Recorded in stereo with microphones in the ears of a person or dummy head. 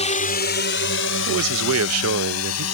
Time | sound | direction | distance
0.0 | a drone | 35° left (ahead or behind) | ?
1.3 | a man speaking | 75° right (ahead or behind) | ?